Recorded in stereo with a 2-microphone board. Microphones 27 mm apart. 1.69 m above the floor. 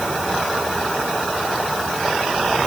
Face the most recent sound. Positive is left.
No sound to turn to.